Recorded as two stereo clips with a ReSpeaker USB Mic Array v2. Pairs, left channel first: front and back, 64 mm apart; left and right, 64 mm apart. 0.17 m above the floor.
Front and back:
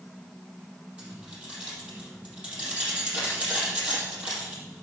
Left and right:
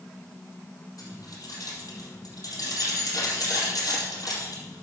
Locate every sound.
1.0 s keys jangling: 110° left, 4 m